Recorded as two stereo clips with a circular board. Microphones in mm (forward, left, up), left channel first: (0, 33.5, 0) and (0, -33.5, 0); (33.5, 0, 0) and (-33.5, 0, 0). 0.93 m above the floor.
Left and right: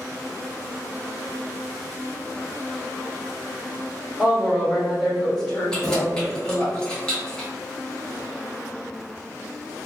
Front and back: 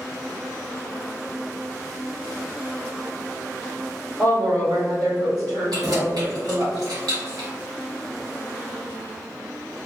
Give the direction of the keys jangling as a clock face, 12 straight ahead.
6 o'clock.